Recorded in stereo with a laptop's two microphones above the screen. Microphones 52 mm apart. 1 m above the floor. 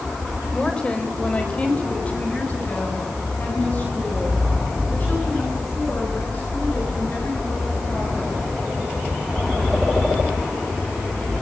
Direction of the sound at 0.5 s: 15° left (ahead or behind).